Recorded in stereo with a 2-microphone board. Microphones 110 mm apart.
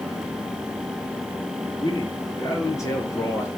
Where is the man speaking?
40° left (ahead or behind), 5 m; by 3.5 s 20° left (ahead or behind), 3 m.